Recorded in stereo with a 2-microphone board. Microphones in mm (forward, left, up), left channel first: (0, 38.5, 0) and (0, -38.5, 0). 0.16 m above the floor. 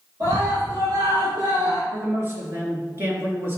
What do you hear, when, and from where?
0.2 s a scream: 55° right (ahead or behind), 4 m
1.9 s a man speaking: 30° right (ahead or behind), 3 m